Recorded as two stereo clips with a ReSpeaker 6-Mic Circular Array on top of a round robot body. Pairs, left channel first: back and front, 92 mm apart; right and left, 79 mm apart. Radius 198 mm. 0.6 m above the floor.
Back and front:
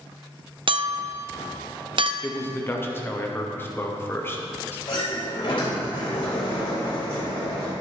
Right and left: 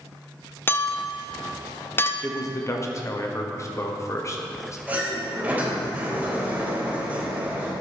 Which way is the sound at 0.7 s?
25° right.